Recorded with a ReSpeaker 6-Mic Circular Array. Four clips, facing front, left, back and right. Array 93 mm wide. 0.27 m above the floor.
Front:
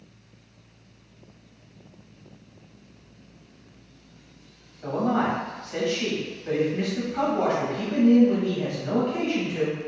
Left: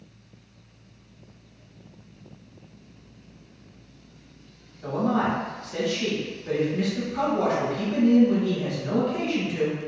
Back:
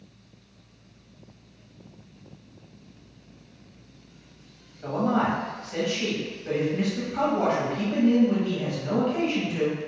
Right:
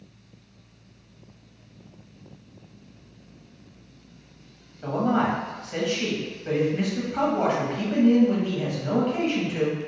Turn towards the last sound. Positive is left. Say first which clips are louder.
# right 1 dB, even
turn(degrees=-95)